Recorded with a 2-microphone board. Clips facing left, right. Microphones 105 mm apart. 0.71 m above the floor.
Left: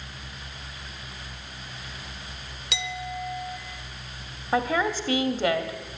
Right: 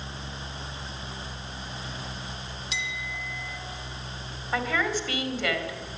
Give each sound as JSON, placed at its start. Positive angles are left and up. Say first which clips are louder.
{"t": 2.7, "sound": "a clink", "louder": "left 6 dB", "side_deg": 75, "distance_m": 1.2}
{"t": 4.5, "sound": "a woman speaking", "louder": "left 3 dB", "side_deg": 35, "distance_m": 1.5}